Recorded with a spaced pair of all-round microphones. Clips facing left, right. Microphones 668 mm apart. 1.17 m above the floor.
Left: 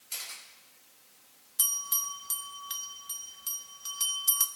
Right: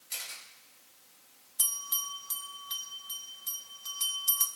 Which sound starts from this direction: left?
A bell, at 1.6 s.